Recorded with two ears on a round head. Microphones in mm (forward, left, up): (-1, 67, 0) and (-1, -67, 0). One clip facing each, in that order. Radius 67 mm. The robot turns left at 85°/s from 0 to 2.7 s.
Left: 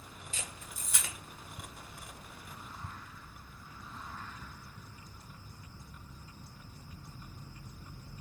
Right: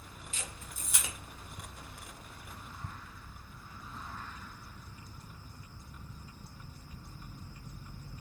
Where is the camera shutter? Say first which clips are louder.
Even; 35° left (ahead or behind), 0.9 m; by 1.1 s 25° right (ahead or behind), 0.9 m.